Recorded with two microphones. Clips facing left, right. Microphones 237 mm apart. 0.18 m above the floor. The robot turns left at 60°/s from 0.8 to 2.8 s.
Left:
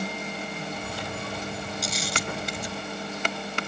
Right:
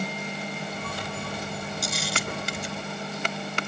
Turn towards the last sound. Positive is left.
turn(degrees=-60)  # may be behind; listen again after turning